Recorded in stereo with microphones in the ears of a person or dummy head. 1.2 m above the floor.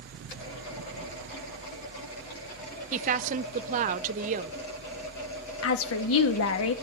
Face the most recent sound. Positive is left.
turn(degrees=65)  # may be behind; listen again after turning